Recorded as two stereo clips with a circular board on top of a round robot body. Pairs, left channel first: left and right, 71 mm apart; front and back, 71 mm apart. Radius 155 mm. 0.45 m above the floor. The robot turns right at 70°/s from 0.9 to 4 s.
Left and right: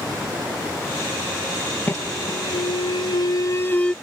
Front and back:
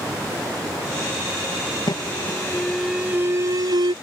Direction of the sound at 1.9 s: 25° left.